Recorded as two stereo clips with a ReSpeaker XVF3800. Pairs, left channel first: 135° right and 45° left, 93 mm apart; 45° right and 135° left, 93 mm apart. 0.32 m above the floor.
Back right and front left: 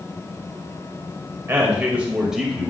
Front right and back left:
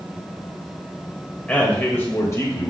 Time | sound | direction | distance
1.5 | a man speaking | 15° left | 1.4 m